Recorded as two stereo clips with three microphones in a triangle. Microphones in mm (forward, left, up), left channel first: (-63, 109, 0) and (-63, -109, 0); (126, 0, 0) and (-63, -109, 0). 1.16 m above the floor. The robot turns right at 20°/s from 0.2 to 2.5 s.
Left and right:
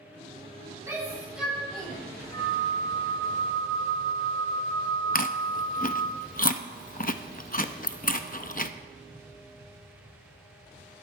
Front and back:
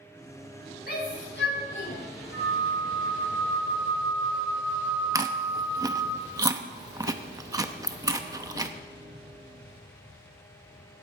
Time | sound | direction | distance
0.9 | a shout | 15° right | 6 m
2.3 | a flute | 25° left | 4 m
5.2 | chewing | 140° left | 0.7 m